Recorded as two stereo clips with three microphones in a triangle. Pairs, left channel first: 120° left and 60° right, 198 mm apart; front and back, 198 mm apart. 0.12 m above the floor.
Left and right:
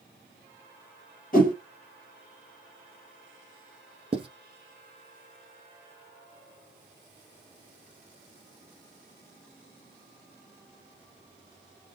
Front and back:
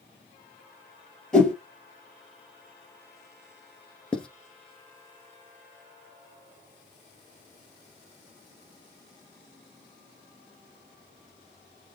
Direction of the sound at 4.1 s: 80° right.